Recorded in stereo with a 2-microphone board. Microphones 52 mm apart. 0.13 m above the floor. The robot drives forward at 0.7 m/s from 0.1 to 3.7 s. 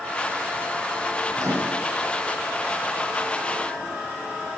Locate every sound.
1.4 s a microwave: 75° right (ahead or behind), 3.5 m; by 1.9 s 70° right (ahead or behind), 3.5 m